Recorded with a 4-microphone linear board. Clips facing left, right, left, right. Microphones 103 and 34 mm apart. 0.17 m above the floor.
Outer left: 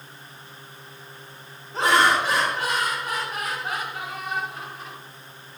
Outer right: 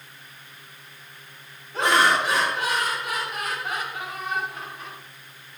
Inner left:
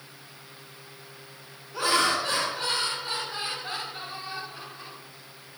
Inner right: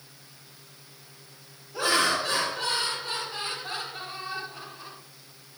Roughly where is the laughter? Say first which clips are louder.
Outer left 1 dB, even; left.